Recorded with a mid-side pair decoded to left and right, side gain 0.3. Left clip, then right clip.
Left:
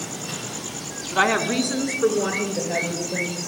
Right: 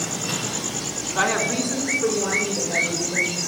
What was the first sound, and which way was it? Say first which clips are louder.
A woman speaking: left 2 dB; 55° left.